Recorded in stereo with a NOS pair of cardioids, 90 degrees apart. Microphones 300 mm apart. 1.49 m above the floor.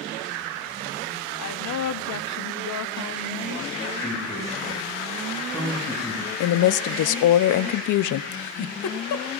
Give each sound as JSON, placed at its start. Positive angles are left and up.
{"t": 1.4, "sound": "a woman speaking", "azimuth_deg": 60, "distance_m": 0.8}
{"t": 4.0, "sound": "a man speaking", "azimuth_deg": 10, "distance_m": 6.0}
{"t": 6.4, "sound": "a woman speaking", "azimuth_deg": 65, "distance_m": 0.6}
{"t": 8.3, "sound": "a giggle", "azimuth_deg": 60, "distance_m": 1.1}